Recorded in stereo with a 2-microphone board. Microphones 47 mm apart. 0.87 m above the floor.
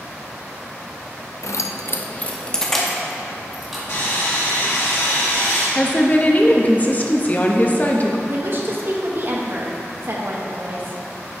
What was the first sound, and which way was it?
Keys jangling, 70° left (ahead or behind).